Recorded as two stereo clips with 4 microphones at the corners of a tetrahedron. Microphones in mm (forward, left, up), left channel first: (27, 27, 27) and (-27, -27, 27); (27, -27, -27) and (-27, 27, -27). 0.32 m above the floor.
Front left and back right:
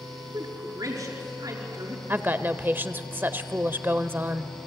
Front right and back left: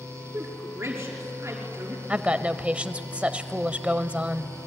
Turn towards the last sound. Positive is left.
turn(degrees=-170)